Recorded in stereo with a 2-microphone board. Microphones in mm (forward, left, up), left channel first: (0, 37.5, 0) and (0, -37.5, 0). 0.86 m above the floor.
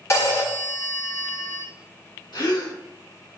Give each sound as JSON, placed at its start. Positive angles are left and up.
{"t": 0.1, "sound": "a phone ringing", "side_deg": 35, "distance_m": 1.0}
{"t": 2.3, "sound": "a gasp", "side_deg": 65, "distance_m": 1.2}